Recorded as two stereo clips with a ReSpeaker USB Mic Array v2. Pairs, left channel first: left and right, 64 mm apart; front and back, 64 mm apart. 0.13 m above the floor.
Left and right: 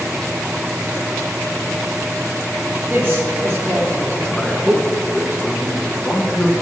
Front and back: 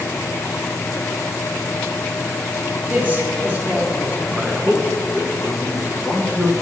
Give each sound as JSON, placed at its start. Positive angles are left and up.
{"t": 2.9, "sound": "a man speaking", "azimuth_deg": -135, "distance_m": 1.7}
{"t": 4.3, "sound": "a man speaking", "azimuth_deg": 125, "distance_m": 1.4}